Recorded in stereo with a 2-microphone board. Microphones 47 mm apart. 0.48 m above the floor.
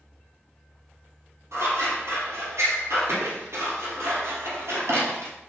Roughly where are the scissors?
Right.